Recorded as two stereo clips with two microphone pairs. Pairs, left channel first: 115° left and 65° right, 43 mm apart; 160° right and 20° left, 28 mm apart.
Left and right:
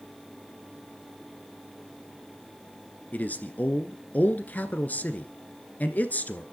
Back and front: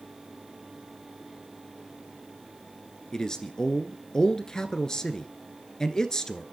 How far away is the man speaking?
About 1.4 m.